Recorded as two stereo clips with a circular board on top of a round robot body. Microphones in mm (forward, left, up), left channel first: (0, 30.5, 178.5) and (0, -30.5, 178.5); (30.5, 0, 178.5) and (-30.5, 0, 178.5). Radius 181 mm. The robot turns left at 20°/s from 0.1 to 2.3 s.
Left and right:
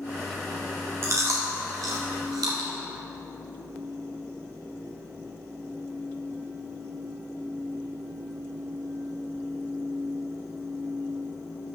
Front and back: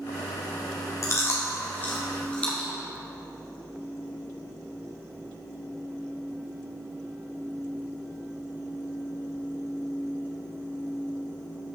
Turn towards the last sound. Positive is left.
turn(degrees=-70)